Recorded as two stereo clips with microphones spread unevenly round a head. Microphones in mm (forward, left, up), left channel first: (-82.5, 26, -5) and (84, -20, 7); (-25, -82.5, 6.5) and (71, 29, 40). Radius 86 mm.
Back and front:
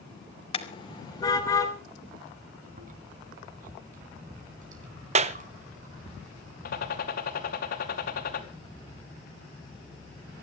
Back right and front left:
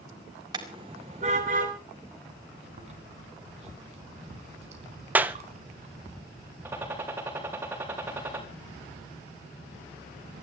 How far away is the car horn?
About 2 m.